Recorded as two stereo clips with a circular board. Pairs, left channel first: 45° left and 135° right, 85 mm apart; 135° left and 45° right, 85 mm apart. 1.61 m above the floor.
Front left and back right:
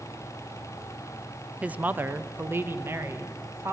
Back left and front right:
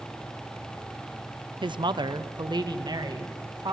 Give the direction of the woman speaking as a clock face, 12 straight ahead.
2 o'clock.